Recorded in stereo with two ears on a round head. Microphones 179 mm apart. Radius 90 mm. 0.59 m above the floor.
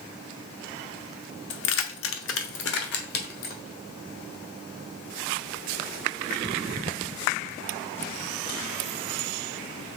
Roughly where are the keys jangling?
Left.